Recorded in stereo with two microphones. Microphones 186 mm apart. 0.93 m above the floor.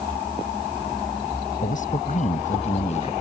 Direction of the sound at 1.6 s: 45° left (ahead or behind).